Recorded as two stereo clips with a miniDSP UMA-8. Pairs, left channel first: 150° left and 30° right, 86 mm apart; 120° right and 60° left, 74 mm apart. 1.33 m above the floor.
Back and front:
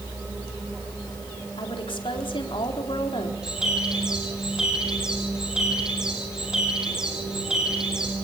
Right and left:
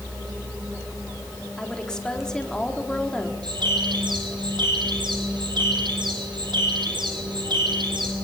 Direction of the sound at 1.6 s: 160° left.